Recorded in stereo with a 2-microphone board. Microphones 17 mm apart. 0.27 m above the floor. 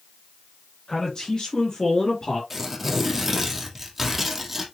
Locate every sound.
0.9 s a man speaking: 45° left (ahead or behind), 3.5 m; by 2.4 s 55° left (ahead or behind), 4.5 m
2.5 s tearing paper: 10° right (ahead or behind), 3 m